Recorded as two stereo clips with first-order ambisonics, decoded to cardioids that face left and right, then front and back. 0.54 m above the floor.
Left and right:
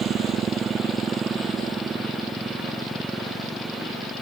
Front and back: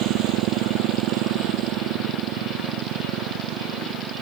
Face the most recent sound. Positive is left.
turn(degrees=-175)